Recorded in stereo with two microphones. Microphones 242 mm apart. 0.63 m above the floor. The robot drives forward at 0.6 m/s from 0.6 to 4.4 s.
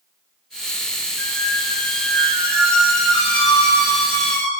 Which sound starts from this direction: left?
A squeak, at 1.2 s.